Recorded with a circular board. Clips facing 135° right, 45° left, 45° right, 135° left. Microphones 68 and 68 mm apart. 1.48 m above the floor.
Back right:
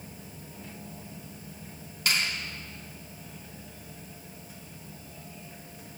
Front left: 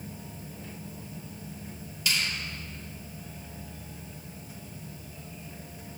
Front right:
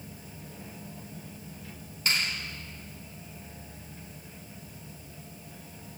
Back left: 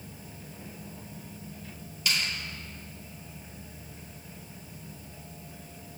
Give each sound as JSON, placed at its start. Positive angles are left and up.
{"t": 2.1, "sound": "a finger snap", "azimuth_deg": -95, "distance_m": 3.0}